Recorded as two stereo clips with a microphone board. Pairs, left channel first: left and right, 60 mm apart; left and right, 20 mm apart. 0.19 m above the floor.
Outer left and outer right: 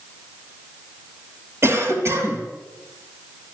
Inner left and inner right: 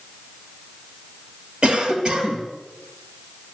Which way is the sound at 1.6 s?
45° right (ahead or behind).